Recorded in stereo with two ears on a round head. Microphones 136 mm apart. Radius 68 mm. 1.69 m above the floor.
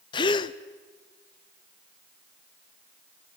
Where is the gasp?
30° left (ahead or behind), 0.7 m.